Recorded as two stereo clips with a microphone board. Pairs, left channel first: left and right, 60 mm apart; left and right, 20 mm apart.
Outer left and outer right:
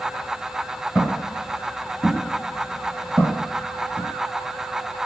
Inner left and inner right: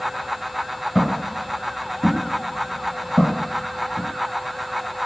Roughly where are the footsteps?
Centre.